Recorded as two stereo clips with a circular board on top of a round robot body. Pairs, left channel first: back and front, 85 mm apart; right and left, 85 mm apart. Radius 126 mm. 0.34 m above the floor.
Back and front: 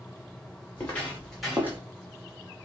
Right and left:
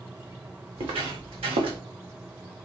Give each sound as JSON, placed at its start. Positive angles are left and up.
{"t": 0.8, "sound": "footsteps", "azimuth_deg": 110, "distance_m": 1.7}